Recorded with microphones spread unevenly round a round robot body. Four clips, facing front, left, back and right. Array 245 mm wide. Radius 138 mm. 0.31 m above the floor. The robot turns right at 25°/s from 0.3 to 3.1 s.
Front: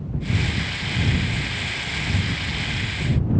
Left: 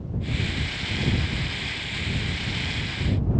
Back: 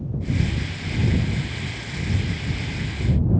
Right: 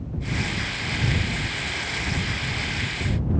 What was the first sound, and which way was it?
Only background noise.